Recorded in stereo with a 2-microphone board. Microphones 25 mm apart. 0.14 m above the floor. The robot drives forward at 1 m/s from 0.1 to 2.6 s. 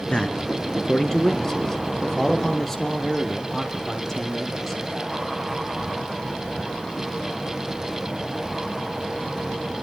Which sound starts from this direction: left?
A man speaking, at 0.1 s.